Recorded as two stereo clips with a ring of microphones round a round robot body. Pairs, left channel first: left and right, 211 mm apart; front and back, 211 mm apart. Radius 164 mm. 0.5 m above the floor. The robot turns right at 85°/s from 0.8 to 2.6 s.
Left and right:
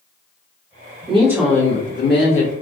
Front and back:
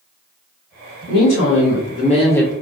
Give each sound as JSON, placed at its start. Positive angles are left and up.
{"t": 1.1, "sound": "a woman speaking", "azimuth_deg": -30, "distance_m": 1.9}